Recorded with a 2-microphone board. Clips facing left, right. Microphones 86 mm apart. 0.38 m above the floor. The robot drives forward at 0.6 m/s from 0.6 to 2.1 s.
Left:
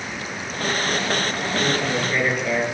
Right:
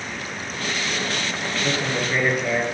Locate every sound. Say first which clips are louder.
1.6 s a man speaking: even; 15° right (ahead or behind), 6 m